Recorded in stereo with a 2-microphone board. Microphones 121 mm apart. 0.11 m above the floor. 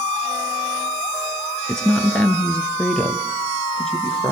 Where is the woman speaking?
5° left (ahead or behind), 1.3 m.